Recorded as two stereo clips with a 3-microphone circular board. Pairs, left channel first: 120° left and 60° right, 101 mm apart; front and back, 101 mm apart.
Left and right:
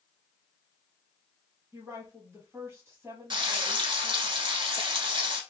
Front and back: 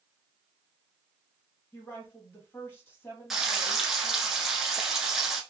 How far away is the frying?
About 0.8 m.